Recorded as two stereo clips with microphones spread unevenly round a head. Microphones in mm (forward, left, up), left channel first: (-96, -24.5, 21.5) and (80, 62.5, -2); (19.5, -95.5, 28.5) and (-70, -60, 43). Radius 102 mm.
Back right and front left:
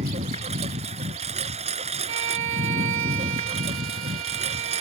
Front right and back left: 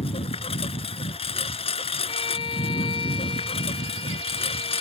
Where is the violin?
5° left.